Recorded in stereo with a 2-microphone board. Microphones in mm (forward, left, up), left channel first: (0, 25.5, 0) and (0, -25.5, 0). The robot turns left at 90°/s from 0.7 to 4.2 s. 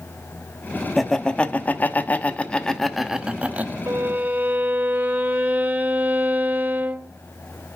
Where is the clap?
No clap in this recording.